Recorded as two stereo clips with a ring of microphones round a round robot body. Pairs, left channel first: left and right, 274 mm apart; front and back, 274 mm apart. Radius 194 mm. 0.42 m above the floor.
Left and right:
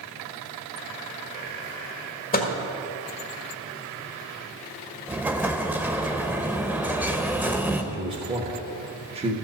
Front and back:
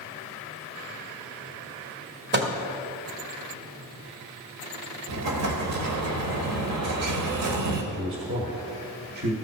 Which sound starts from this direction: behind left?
A microwave, at 2.3 s.